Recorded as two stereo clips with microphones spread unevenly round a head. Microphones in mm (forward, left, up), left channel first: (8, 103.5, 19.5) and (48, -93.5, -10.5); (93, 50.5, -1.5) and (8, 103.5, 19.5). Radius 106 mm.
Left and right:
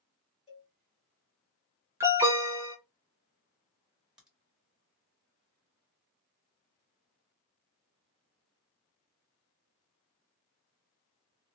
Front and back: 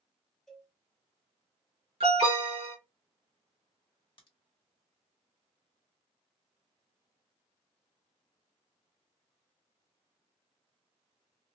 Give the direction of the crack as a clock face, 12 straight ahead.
12 o'clock.